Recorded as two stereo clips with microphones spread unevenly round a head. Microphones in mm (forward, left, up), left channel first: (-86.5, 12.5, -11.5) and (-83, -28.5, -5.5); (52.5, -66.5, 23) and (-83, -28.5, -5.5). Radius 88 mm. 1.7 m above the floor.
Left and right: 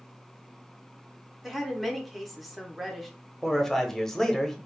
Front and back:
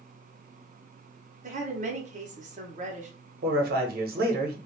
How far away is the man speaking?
About 0.9 m.